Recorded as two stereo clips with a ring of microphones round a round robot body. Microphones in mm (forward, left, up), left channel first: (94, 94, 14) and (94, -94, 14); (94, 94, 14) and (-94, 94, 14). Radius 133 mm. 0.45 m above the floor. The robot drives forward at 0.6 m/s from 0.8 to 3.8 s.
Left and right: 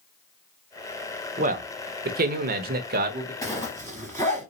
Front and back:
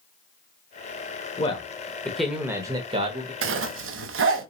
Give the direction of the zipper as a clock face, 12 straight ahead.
6 o'clock.